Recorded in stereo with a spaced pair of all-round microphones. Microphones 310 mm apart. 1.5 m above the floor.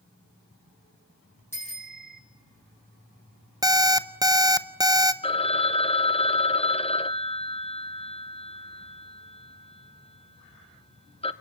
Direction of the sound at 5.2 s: 15° left (ahead or behind).